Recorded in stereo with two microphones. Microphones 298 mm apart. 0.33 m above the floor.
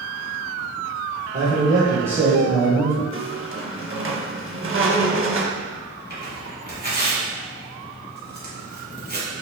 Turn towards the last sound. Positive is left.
turn(degrees=-35)  # may be behind; listen again after turning